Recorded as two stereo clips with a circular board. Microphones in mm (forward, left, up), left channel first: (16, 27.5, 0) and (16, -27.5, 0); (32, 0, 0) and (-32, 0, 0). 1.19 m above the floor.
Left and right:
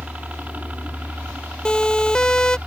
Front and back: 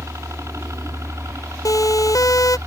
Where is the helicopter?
150° right.